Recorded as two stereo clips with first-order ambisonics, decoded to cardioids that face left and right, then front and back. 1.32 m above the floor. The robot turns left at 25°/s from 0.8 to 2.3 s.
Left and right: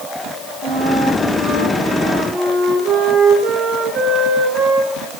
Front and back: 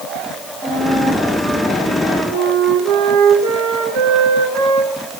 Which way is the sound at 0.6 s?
110° right.